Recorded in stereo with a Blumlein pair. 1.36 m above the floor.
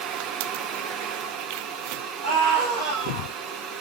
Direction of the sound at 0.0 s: 35° right.